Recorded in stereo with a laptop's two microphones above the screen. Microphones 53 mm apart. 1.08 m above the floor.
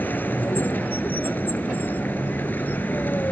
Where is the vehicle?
35° left (ahead or behind).